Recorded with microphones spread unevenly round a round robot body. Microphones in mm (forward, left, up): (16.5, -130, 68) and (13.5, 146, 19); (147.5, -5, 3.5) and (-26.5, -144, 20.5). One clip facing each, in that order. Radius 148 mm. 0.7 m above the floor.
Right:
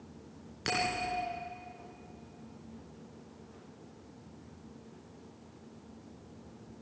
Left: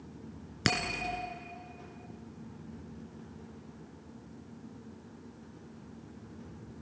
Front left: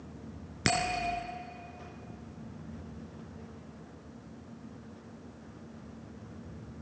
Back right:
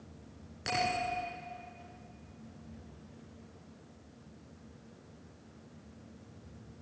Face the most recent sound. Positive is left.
turn(degrees=75)